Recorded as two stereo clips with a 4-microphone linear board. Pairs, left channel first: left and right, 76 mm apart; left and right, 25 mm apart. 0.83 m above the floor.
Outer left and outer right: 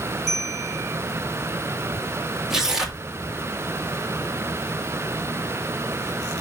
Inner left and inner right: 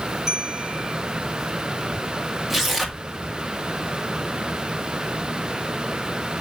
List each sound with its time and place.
0.3 s a bell: centre (ahead or behind), 2.5 m
2.5 s tearing paper: 5° right (ahead or behind), 1.9 m